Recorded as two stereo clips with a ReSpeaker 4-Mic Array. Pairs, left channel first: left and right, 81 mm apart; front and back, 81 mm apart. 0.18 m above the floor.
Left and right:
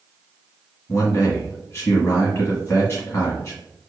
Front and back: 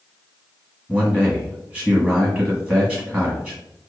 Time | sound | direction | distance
0.9 | a man speaking | 100° left | 1.2 m